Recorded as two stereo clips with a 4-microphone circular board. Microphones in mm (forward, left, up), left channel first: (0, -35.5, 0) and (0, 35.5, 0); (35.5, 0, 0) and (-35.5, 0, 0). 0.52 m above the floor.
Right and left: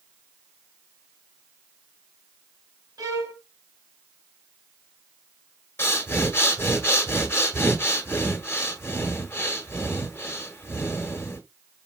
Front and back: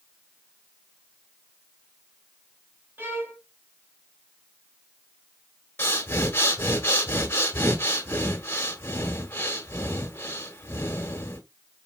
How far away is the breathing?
About 1.1 m.